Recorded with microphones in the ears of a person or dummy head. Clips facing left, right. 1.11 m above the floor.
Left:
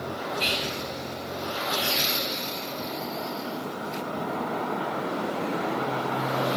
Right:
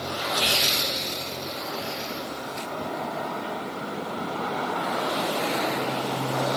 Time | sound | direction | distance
0.4 | whispering | 35° left (ahead or behind) | 2.5 m